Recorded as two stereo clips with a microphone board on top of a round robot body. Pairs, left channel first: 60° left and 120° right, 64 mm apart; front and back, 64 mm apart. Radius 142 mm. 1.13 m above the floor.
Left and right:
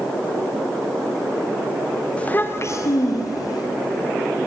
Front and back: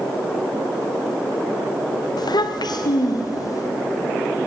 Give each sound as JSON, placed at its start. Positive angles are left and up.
{"t": 2.2, "sound": "a child speaking", "azimuth_deg": -15, "distance_m": 1.2}